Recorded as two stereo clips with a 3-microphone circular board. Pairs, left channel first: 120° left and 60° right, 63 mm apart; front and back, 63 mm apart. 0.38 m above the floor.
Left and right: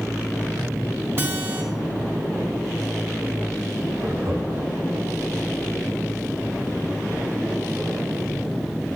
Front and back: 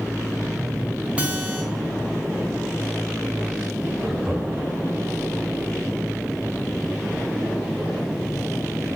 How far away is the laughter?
About 2.5 m.